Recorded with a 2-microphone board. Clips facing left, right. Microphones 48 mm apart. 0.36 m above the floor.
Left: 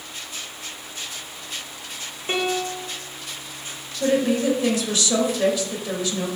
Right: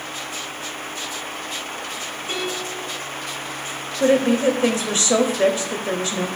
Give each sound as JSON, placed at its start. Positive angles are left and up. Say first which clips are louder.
{"t": 2.3, "sound": "a piano", "louder": "left 4 dB", "side_deg": 30, "distance_m": 1.3}
{"t": 4.0, "sound": "a woman speaking", "louder": "right 4 dB", "side_deg": -30, "distance_m": 1.1}